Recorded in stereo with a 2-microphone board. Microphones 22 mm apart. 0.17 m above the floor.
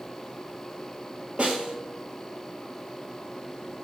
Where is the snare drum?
45° right (ahead or behind), 1.1 m.